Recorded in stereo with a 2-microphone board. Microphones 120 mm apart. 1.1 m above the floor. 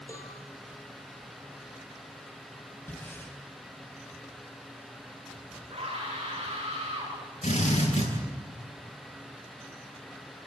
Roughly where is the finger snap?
No finger snap in this recording.